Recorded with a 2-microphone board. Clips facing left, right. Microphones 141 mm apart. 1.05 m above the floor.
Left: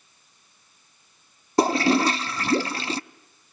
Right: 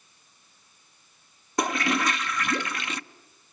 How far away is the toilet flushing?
About 0.5 m.